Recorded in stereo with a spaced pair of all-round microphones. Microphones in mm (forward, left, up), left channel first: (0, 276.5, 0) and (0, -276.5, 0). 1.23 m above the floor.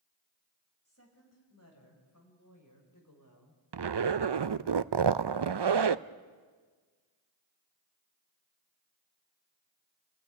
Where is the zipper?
55° right (ahead or behind), 0.5 m.